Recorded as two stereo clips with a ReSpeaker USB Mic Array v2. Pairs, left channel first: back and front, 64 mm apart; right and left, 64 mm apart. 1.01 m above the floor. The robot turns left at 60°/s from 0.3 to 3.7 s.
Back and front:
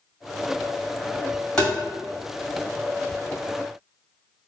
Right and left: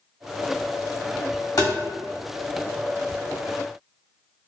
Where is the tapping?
105° right, 1.8 m; by 1.7 s 115° right, 1.8 m.